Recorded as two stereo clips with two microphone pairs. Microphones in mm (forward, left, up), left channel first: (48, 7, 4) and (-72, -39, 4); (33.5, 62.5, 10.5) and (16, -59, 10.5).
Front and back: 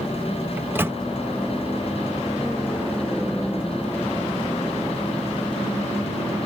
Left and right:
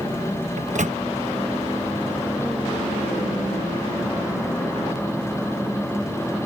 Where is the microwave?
85° right.